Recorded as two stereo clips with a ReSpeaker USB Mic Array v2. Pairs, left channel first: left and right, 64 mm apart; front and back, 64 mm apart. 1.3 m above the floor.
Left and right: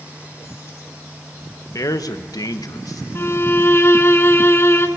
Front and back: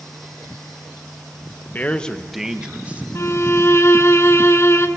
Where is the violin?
40° left, 2.0 m.